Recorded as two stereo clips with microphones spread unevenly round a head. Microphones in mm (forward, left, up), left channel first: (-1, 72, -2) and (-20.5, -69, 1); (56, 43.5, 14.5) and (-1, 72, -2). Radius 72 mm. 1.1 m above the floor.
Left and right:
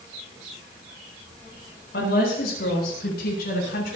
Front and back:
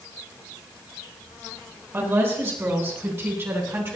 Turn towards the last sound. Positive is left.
turn(degrees=105)